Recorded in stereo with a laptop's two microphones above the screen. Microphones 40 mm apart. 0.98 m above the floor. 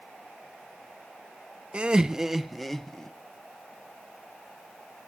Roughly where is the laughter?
Right.